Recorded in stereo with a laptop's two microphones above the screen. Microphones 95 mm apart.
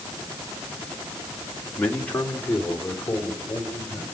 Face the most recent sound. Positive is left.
turn(degrees=20)  # may be behind; listen again after turning